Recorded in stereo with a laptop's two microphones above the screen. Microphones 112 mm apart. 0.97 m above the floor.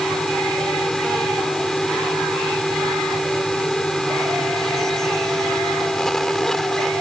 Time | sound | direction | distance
0.0 | a fan | 5° left (ahead or behind) | ?